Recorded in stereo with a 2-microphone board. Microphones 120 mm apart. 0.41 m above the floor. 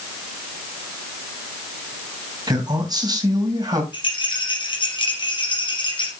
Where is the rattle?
40° left (ahead or behind), 3.5 m.